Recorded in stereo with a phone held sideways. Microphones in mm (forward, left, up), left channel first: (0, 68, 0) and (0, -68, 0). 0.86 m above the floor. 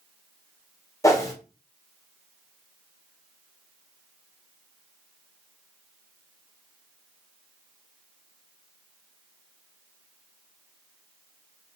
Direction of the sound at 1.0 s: 25° left (ahead or behind).